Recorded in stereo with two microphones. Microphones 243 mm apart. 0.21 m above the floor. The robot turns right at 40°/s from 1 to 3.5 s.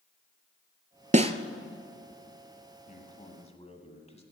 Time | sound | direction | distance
1.1 | a snare drum | 30° right (ahead or behind) | 0.6 m
2.9 | a man speaking | 35° left (ahead or behind) | 1.5 m